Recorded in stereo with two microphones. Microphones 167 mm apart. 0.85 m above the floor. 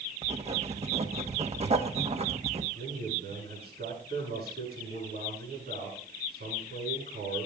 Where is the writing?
40° right (ahead or behind), 1.4 m.